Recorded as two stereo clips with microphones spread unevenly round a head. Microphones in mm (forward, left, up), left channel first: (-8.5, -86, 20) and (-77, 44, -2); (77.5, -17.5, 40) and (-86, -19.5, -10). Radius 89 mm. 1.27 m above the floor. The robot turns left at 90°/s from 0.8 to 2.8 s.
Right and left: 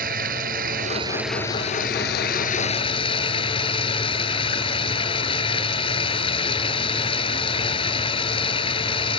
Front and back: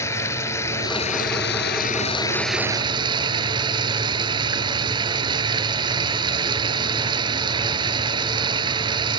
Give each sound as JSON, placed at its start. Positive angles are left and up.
{"t": 0.0, "sound": "running water", "azimuth_deg": 70}